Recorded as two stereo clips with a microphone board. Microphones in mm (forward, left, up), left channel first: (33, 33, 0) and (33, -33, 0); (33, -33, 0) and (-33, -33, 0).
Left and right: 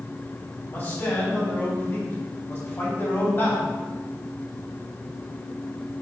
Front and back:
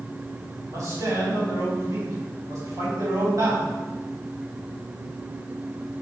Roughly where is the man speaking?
Behind left.